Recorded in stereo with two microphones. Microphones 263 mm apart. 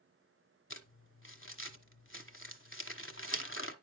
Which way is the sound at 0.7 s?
50° left (ahead or behind).